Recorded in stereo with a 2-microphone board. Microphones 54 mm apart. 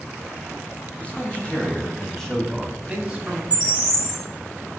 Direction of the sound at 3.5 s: 20° right (ahead or behind).